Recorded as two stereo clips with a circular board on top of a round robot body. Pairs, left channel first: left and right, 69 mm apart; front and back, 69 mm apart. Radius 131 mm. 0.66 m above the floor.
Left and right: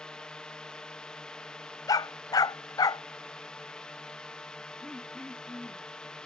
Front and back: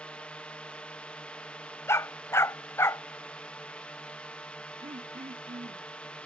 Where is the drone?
35° left.